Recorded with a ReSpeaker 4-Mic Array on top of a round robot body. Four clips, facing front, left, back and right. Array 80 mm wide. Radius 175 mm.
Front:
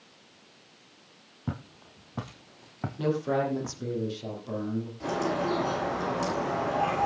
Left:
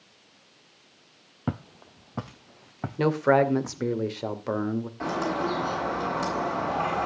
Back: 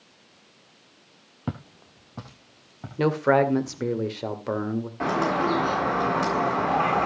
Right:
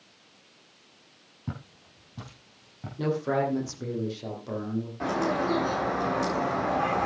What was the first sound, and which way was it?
Footsteps, 110° left.